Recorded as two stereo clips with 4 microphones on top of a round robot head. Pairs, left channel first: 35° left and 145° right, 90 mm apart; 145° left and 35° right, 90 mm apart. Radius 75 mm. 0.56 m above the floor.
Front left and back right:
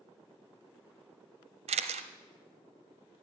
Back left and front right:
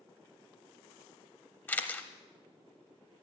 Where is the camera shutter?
145° right, 0.8 m.